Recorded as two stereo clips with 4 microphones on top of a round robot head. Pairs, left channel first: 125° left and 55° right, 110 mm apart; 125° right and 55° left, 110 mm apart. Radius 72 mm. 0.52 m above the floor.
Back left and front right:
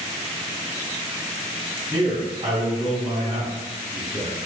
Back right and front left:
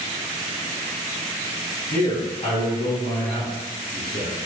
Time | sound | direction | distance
1.9 | a man speaking | 90° right | 1.5 m